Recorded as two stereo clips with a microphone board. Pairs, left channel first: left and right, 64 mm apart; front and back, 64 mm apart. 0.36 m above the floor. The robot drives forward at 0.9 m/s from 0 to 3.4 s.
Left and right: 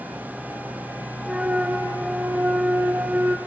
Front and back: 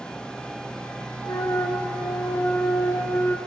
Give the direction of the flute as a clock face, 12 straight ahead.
12 o'clock.